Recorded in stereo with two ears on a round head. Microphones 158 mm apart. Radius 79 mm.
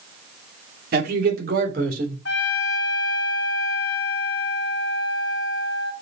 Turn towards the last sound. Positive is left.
turn(degrees=65)  # may be behind; listen again after turning